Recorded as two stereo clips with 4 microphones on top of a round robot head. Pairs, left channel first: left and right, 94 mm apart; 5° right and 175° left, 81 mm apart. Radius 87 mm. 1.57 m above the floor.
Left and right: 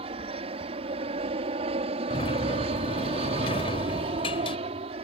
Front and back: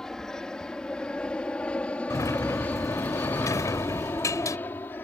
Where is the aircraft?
90° right; by 5.0 s 75° right.